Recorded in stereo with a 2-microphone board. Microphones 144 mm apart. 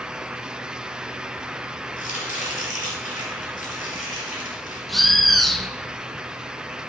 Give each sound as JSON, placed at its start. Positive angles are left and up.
{"t": 2.0, "sound": "chopping", "side_deg": 75, "distance_m": 4.5}
{"t": 4.9, "sound": "a bird", "side_deg": 0, "distance_m": 1.0}